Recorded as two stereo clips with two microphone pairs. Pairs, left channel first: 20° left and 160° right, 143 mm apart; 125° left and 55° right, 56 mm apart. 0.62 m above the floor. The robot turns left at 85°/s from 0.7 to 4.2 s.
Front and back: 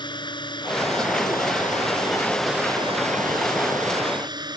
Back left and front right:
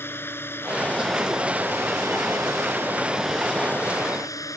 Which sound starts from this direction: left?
A drone, at 0.0 s.